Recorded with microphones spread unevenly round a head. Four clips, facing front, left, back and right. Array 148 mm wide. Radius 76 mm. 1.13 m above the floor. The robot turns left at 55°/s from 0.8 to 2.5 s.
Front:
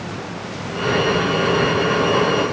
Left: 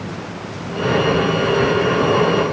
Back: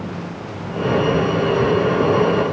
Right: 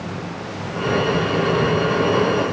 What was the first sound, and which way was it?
Only background noise.